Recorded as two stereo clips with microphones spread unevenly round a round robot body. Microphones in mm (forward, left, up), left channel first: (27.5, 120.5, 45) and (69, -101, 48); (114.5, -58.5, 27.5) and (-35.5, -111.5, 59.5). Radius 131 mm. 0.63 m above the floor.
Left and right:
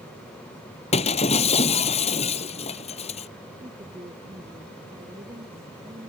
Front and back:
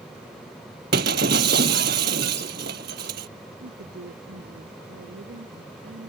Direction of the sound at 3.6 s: 155° right.